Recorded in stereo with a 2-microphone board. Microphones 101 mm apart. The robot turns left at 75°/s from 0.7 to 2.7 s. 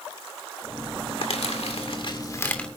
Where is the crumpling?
60° left (ahead or behind), 2 m; by 2.7 s 5° left (ahead or behind), 2 m.